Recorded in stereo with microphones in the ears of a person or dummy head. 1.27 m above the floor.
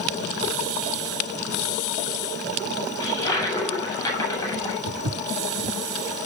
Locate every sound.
3.0 s a toilet flushing: 20° left (ahead or behind), 9 m
4.9 s footsteps: 40° right (ahead or behind), 2.0 m